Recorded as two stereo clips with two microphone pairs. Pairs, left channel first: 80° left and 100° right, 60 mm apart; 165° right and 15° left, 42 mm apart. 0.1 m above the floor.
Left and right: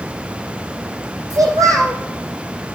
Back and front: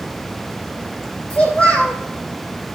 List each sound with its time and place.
1.3 s a child speaking: 100° right, 4 m